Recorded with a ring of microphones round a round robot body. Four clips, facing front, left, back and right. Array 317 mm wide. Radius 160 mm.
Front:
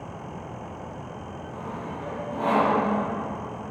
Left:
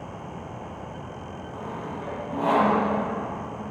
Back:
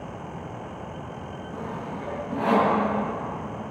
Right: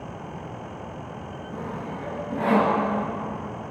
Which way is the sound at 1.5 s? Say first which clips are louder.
Right 1 dB, back 1 dB; 100° right.